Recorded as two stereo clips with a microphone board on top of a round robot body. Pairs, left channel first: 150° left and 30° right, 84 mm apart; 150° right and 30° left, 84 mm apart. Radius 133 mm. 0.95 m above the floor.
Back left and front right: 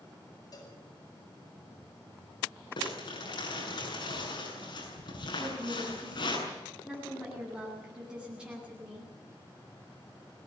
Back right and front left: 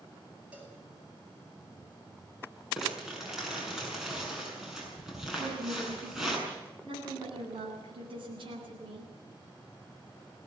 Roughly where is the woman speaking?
Ahead left.